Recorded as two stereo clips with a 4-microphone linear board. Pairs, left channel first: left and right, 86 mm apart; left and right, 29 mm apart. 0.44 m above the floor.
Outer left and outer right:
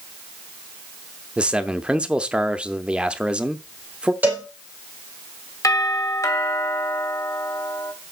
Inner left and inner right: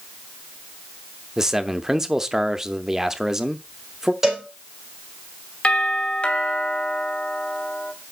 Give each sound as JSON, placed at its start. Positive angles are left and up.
{"t": 1.4, "sound": "a man speaking", "side_deg": -10, "distance_m": 0.7}
{"t": 4.2, "sound": "a cowbell", "side_deg": -20, "distance_m": 4.0}
{"t": 5.6, "sound": "a doorbell", "side_deg": 40, "distance_m": 2.0}